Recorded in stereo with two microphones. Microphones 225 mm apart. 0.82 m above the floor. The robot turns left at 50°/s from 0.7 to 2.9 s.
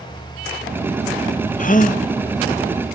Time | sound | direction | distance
1.6 | a gasp | 35° left (ahead or behind) | 0.6 m